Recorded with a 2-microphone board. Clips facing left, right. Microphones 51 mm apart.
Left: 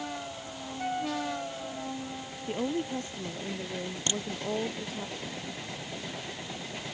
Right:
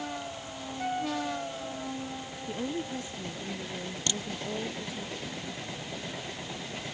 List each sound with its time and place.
2.5 s a woman speaking: 45° left (ahead or behind); by 5.1 s 55° left (ahead or behind)
4.1 s a crack: 25° left (ahead or behind)